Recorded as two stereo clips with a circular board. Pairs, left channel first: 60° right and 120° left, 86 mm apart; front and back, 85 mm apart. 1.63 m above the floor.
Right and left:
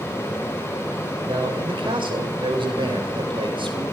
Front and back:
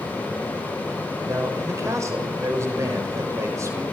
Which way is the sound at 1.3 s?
125° left.